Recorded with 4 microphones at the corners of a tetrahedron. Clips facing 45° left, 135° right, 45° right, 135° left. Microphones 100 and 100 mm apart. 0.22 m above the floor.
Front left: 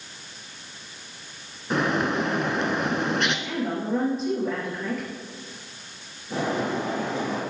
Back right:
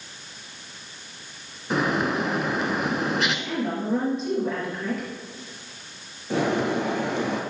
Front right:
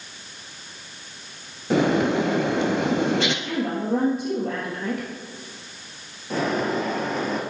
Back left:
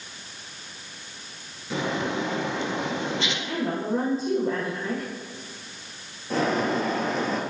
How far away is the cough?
I don't hear a cough.